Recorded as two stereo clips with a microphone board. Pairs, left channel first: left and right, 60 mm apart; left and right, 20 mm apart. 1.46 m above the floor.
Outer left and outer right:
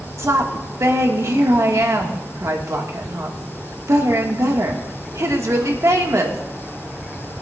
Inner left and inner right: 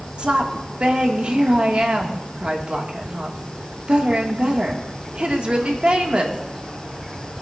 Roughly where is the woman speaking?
Right.